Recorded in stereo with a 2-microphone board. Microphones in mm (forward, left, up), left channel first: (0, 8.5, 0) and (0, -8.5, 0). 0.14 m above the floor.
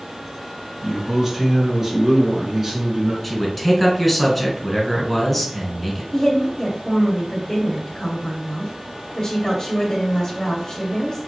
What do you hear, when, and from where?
0.8 s a man speaking: 25° right (ahead or behind), 1.4 m
3.2 s a man speaking: 5° left (ahead or behind), 1.5 m
6.1 s a woman speaking: 20° left (ahead or behind), 1.6 m